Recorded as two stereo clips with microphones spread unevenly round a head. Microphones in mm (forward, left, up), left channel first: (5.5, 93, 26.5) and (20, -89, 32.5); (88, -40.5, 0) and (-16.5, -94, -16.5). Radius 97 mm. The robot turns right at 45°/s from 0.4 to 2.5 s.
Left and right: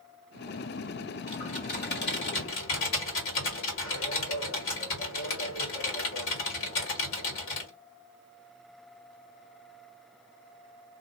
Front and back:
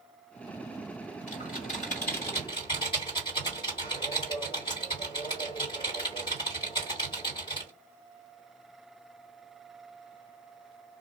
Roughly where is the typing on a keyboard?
Ahead left.